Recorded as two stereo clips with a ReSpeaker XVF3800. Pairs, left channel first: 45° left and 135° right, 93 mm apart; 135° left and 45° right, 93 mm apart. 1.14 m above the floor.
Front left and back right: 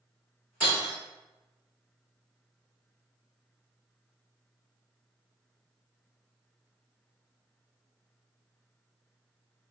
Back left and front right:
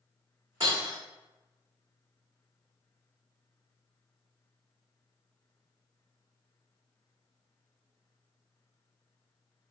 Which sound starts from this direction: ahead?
Breaking glass, at 0.6 s.